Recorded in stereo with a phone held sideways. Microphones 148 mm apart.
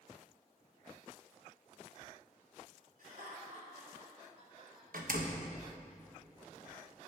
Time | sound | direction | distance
3.0 | laughter | 75° right (ahead or behind) | 3 m
4.9 | a door slam | 70° right (ahead or behind) | 0.8 m